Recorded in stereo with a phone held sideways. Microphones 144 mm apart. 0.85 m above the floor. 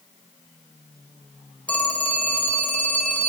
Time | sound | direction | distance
1.7 | a phone ringing | 10° left (ahead or behind) | 2.5 m